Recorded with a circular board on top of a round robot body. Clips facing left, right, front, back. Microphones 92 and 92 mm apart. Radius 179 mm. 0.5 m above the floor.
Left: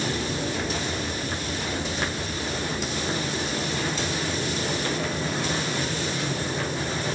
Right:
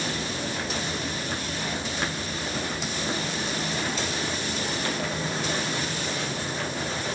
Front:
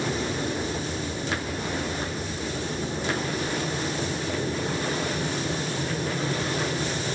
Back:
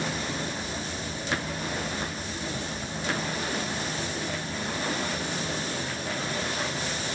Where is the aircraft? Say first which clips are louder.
Left 3 dB, front 4 dB; 25° left; by 7.2 s 20° left.